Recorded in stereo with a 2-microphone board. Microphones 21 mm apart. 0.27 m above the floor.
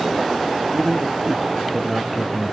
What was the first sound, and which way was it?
A man speaking, 50° right (ahead or behind).